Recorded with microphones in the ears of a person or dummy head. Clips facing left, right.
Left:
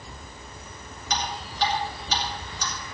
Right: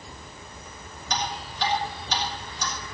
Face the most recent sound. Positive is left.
turn(degrees=55)  # may be behind; listen again after turning